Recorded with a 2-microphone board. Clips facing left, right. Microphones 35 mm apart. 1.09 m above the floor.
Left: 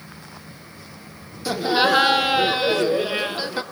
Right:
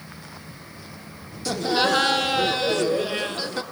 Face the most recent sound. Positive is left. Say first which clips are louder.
# left 3 dB
turn(degrees=20)  # may be behind; listen again after turning